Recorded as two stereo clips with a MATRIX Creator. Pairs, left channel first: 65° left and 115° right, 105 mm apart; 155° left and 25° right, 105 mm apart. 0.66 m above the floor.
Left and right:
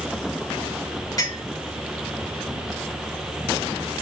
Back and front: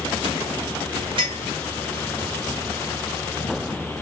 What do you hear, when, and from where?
1.2 s a clink: 15° left, 5.5 m